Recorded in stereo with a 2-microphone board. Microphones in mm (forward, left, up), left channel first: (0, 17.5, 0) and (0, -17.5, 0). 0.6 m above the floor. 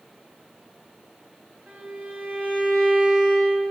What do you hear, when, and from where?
1.7 s a violin: 65° right (ahead or behind), 5 m